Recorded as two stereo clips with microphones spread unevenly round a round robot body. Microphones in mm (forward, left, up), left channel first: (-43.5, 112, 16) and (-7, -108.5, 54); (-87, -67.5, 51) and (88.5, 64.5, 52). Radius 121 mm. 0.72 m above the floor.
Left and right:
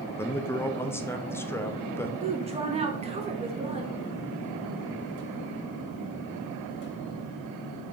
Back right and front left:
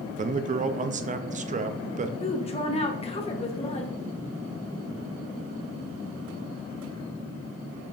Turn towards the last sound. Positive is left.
turn(degrees=-130)